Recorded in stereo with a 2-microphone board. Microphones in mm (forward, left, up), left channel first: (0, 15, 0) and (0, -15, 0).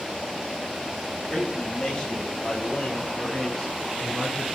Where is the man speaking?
10° left (ahead or behind), 3.5 m; by 4.5 s 25° left (ahead or behind), 2.0 m.